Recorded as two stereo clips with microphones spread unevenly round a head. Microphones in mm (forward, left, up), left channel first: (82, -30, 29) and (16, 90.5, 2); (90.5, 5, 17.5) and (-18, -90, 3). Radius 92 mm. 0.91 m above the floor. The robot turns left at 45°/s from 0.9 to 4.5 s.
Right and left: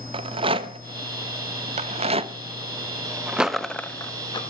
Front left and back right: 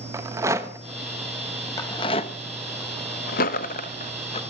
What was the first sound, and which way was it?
A rattle, 155° left.